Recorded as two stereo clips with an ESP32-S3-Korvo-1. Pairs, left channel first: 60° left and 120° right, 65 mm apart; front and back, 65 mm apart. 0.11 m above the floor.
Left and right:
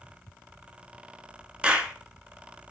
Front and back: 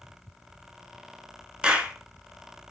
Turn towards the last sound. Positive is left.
turn(degrees=-145)